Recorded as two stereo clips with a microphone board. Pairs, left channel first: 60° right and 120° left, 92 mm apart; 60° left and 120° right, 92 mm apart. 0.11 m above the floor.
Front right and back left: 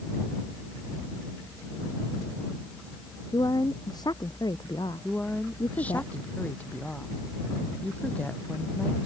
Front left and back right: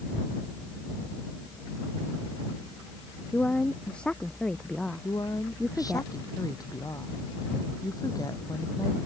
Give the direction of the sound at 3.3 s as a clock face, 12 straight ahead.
1 o'clock.